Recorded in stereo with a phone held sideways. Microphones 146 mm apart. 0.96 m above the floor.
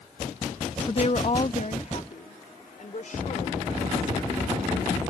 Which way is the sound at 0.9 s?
35° left (ahead or behind).